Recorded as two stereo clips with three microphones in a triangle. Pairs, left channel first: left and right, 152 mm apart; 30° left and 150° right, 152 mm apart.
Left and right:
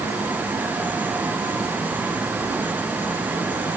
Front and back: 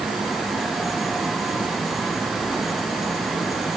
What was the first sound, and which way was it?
Only background noise.